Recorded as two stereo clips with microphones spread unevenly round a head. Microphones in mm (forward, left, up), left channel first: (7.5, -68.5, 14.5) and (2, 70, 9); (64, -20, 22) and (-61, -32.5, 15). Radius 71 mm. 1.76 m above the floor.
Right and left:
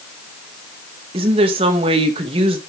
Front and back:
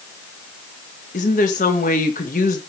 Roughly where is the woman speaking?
Ahead left.